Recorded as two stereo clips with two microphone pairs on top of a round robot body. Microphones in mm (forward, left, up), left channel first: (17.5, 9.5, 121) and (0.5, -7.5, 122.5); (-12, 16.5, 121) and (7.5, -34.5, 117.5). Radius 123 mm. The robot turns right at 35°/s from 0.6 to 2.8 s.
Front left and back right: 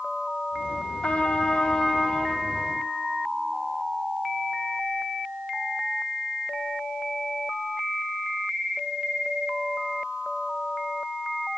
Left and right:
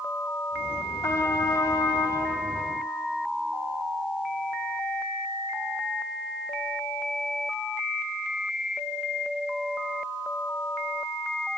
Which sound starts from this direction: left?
A trumpet, at 1.0 s.